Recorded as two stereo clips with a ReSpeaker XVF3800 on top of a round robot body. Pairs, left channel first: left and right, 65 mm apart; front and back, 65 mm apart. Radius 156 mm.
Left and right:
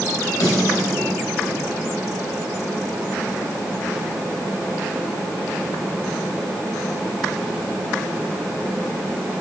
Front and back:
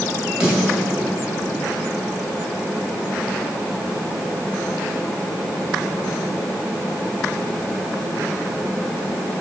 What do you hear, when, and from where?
0.4 s a snare drum: 105° left, 3.5 m